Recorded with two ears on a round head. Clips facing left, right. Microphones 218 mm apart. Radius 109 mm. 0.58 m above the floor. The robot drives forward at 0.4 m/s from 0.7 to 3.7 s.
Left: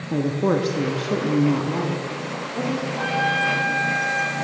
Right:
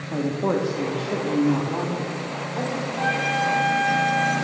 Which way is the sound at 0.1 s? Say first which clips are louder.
Left 2 dB; 30° left (ahead or behind).